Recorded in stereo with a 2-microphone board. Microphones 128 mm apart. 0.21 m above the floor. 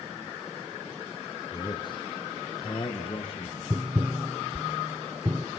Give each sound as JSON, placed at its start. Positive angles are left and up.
{"t": 1.5, "sound": "a man speaking", "side_deg": 35, "distance_m": 2.5}
{"t": 3.7, "sound": "tapping", "side_deg": -20, "distance_m": 1.3}